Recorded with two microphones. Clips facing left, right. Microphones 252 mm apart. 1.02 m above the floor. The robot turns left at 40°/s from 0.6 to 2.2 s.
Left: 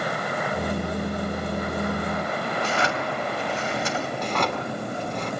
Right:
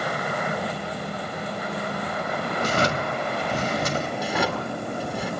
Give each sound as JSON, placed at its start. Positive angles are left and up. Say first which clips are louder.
{"t": 2.6, "sound": "a drawer", "louder": "right 4 dB", "side_deg": -45, "distance_m": 2.0}
{"t": 4.2, "sound": "a drawer", "louder": "right 1 dB", "side_deg": -10, "distance_m": 2.0}